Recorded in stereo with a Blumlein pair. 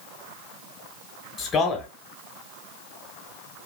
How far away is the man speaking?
About 1.0 m.